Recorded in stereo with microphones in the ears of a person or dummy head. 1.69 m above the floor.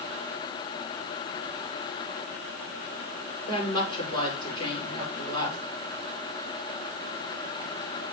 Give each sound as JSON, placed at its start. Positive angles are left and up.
{"t": 3.5, "sound": "a woman speaking", "side_deg": 25, "distance_m": 7.0}